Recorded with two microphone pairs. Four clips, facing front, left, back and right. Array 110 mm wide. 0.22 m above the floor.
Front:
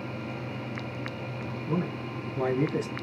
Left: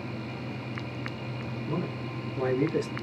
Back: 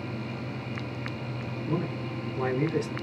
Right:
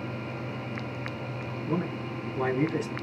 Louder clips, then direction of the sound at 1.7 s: Right 3 dB, even; 65° right.